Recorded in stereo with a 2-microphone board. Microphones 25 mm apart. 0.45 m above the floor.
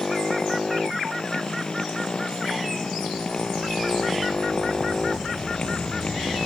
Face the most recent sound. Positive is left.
turn(degrees=35)  # may be behind; listen again after turning